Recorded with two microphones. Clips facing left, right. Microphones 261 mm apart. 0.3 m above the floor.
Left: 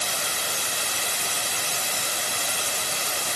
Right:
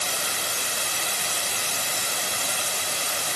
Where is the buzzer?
No buzzer in this recording.